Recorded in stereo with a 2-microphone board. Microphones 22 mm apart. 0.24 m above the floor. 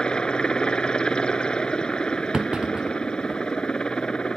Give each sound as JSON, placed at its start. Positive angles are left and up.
{"t": 0.0, "sound": "a helicopter", "side_deg": 45}
{"t": 2.3, "sound": "a clunk", "side_deg": -45}